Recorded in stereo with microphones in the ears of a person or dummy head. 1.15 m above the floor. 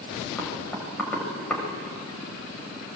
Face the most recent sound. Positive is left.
turn(degrees=10)  # may be behind; listen again after turning